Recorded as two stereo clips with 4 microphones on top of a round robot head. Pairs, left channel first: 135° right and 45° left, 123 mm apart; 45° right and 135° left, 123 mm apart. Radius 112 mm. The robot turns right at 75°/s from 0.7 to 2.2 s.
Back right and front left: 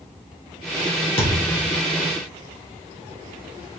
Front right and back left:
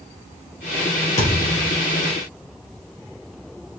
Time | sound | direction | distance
1.2 | a thud | 85° right | 3 m